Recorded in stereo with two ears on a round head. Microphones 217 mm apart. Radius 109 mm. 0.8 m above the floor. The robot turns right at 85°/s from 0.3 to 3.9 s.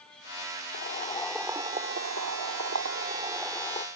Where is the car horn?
No car horn in this recording.